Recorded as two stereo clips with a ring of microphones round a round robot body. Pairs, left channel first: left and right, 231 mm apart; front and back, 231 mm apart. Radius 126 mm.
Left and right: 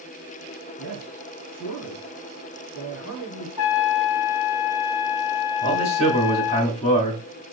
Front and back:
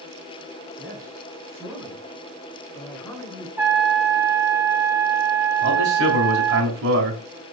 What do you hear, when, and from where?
0.8 s a man speaking: 110° left, 4 m; by 3.5 s 75° left, 4 m
3.6 s a trumpet: 100° left, 2.5 m
5.6 s a man speaking: 145° left, 3 m